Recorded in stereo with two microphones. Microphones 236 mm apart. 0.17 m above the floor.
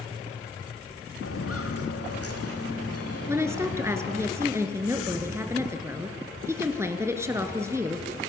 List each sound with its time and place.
1.2 s footsteps: 70° left (ahead or behind), 3 m; by 4.3 s 85° left, 4 m
3.3 s a woman speaking: 10° right (ahead or behind), 2 m